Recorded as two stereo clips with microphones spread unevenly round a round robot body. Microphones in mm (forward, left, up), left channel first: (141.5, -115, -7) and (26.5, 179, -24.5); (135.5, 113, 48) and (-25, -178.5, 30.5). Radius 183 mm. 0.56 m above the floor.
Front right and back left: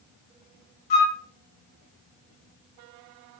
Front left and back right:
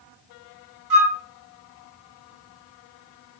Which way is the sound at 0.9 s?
85° right.